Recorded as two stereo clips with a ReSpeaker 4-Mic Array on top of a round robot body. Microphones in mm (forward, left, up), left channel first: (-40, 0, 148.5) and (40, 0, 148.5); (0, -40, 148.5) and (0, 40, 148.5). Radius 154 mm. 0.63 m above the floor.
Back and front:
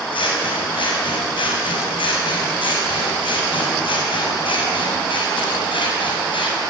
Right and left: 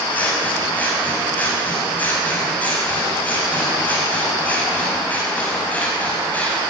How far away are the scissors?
About 6 m.